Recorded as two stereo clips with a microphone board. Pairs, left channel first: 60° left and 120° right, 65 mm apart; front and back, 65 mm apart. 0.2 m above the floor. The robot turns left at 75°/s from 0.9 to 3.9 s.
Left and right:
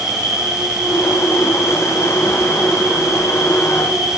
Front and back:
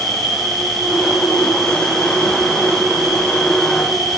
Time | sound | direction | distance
0.0 | an insect | 120° right | 1.1 m